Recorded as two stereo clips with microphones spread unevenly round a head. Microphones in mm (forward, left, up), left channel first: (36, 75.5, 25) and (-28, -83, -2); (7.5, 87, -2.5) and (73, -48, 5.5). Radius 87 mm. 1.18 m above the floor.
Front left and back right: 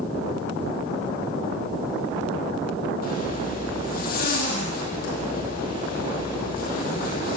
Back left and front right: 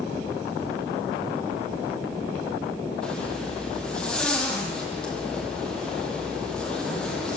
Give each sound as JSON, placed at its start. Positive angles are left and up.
{"t": 3.0, "sound": "a zipper", "azimuth_deg": 35, "distance_m": 9.5}